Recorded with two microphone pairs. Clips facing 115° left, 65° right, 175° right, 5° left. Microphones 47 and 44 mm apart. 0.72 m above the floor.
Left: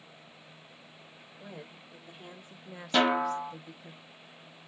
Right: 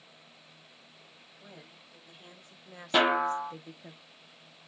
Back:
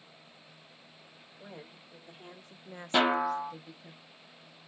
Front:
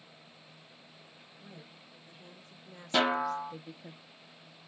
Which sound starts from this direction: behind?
A woman speaking, at 1.4 s.